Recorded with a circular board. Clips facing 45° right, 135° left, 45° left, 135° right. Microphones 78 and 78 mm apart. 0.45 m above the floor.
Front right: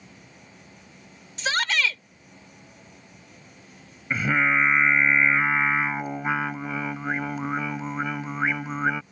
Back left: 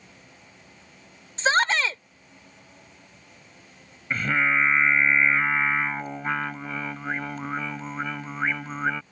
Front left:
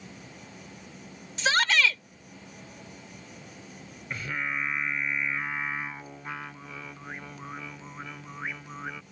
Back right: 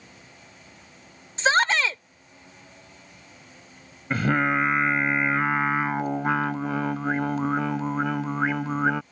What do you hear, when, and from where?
0.0 s an insect: 25° left
1.4 s a shout: straight behind
4.1 s singing: 125° right